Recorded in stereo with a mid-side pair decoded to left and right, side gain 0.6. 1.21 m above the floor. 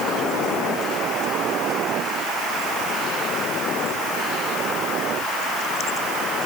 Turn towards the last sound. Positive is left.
No sound to turn to.